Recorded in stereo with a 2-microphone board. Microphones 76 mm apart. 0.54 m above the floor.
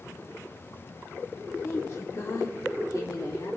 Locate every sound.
1.6 s a woman speaking: 35° left (ahead or behind), 1.2 m; by 3.6 s 55° left (ahead or behind), 1.7 m